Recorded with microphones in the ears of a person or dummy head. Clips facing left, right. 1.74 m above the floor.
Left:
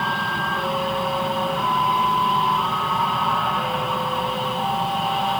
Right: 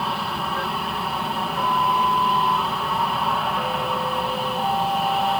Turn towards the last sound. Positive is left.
turn(degrees=0)  # may be behind; listen again after turning